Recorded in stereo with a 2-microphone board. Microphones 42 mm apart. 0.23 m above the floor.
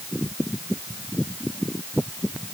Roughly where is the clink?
I don't hear a clink.